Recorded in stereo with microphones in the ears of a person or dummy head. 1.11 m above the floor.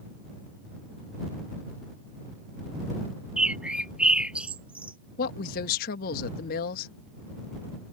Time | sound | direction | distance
3.4 | a bird | 5° right (ahead or behind) | ?
5.2 | a woman speaking | 50° left (ahead or behind) | ?